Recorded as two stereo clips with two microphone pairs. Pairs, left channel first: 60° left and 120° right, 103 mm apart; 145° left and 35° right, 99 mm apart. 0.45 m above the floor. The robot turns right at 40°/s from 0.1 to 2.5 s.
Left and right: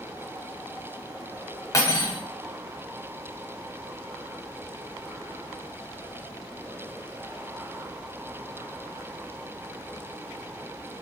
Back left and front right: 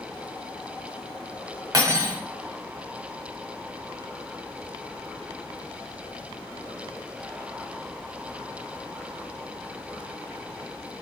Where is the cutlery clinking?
10° left, 0.8 m; by 2.2 s 30° left, 0.8 m.